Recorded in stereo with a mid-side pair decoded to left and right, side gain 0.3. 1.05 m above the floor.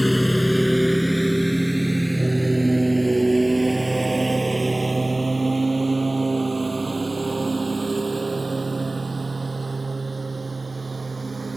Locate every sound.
0.0 s a lawn mower: 10° left; by 11.6 s 35° right